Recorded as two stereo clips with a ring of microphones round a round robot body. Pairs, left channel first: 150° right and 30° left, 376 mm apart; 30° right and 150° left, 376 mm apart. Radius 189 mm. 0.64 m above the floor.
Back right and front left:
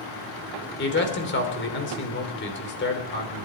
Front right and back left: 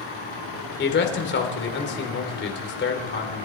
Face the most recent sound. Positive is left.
turn(degrees=-90)